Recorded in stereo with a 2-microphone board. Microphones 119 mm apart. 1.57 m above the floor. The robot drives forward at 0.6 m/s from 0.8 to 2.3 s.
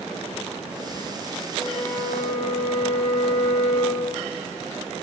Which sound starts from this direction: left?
A flute, at 1.6 s.